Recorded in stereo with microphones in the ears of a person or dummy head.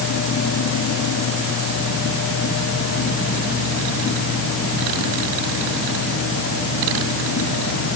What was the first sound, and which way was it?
Only background noise.